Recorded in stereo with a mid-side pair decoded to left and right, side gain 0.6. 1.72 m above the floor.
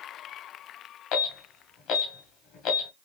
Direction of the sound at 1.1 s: 65° left.